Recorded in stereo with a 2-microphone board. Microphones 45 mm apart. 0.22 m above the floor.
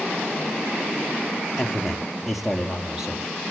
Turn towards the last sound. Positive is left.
turn(degrees=-10)  # may be behind; listen again after turning